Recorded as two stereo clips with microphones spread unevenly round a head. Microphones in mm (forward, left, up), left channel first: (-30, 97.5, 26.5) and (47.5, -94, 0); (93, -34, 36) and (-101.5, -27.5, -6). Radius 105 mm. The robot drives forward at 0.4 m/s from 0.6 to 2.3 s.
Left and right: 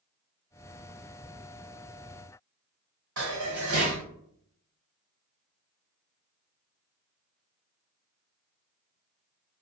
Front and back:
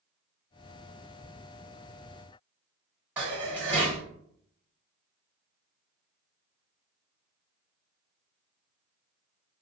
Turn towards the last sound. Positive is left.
turn(degrees=-100)